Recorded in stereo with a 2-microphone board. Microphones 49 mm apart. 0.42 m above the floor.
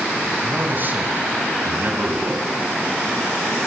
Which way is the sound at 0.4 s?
45° right (ahead or behind).